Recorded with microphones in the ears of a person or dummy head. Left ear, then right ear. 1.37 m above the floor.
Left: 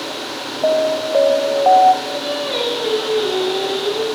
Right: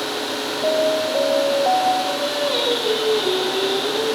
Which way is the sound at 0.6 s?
35° left (ahead or behind).